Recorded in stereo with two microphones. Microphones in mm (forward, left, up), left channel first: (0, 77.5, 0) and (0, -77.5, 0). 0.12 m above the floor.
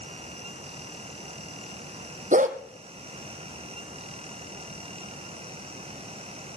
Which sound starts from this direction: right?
A dog barking, at 2.3 s.